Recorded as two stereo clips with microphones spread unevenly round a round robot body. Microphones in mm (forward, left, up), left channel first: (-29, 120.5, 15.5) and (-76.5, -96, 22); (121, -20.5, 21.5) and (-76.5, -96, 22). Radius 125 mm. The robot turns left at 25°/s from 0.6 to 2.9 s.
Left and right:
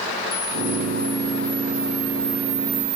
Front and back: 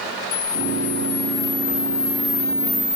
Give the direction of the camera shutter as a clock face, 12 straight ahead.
12 o'clock.